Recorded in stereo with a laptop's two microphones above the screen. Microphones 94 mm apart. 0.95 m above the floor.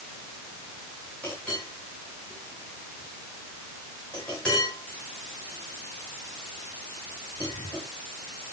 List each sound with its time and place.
1.2 s a clink: 15° left (ahead or behind), 8.5 m